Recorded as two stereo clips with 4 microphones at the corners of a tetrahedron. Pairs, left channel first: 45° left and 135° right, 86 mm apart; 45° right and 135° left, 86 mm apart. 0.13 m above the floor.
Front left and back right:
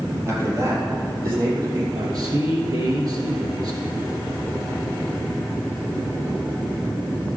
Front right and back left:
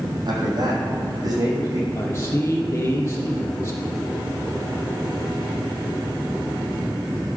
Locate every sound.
0.3 s a man speaking: 170° left, 4 m; by 1.8 s straight behind, 5.5 m
1.9 s a man speaking: 95° right, 3 m